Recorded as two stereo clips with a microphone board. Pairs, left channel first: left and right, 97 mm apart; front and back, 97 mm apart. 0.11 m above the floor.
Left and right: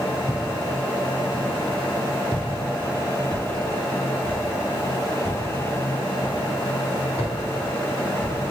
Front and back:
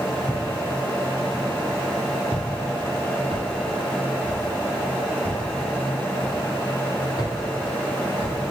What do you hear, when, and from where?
0.3 s footsteps: 145° right, 1.5 m; by 8.4 s 145° left, 4.5 m